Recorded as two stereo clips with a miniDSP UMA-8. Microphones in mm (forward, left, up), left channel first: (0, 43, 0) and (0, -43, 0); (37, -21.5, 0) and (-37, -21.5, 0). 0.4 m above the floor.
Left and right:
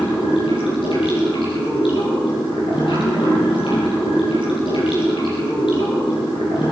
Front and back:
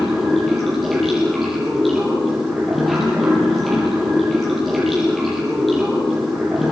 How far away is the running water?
About 8.5 m.